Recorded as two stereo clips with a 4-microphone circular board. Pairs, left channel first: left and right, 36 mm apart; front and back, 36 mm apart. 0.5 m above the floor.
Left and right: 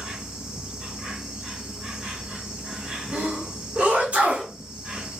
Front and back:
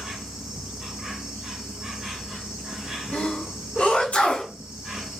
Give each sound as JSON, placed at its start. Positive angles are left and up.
{"t": 0.0, "sound": "an insect", "azimuth_deg": -135, "distance_m": 1.9}
{"t": 3.1, "sound": "a sneeze", "azimuth_deg": -50, "distance_m": 1.8}